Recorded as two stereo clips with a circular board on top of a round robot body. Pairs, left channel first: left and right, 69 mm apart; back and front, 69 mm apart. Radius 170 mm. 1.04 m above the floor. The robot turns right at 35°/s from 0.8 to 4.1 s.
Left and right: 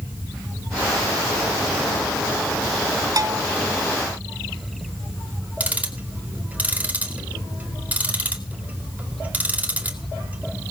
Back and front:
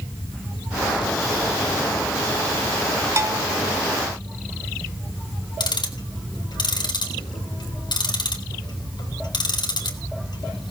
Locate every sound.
3.2 s a bell: 50° right, 1.0 m; by 3.5 s 40° right, 1.0 m
5.6 s ticking: 160° right, 2.5 m